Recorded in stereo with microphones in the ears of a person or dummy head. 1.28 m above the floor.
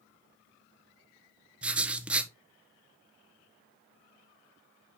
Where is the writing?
5° right (ahead or behind), 0.9 m.